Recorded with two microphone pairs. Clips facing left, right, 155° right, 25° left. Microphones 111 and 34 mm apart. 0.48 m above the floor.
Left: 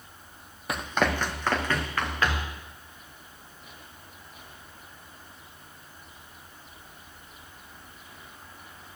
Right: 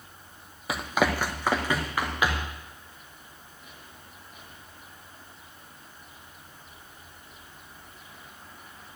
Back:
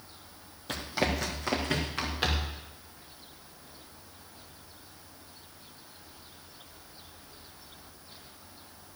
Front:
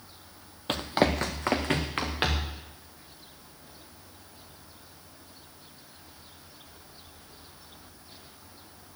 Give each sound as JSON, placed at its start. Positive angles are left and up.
{"t": 0.7, "sound": "running footsteps", "azimuth_deg": 0, "distance_m": 0.9}